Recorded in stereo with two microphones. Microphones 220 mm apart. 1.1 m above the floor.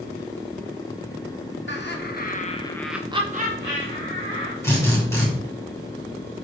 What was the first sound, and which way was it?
Laughter, 60° left (ahead or behind).